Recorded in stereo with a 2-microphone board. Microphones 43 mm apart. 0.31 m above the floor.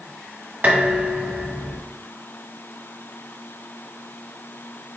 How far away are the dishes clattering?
About 1.4 m.